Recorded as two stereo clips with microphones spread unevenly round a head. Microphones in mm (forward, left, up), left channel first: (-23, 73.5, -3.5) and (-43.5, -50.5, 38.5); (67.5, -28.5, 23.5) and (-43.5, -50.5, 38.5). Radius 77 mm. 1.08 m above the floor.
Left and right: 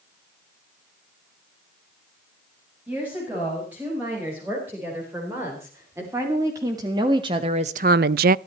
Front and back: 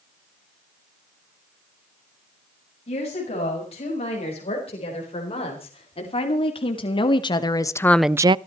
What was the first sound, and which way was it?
A woman speaking, 20° right.